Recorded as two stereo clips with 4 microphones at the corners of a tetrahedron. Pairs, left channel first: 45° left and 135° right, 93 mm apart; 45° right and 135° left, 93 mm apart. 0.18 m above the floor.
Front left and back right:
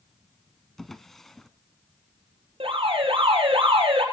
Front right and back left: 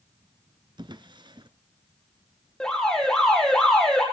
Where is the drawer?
130° left, 1.0 m.